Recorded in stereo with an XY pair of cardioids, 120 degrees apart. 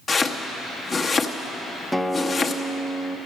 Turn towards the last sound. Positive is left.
turn(degrees=0)